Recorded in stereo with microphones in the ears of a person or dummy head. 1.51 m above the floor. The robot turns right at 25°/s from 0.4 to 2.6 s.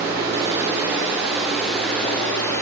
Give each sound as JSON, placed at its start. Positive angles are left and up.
{"t": 0.0, "sound": "running water", "azimuth_deg": -30, "distance_m": 0.9}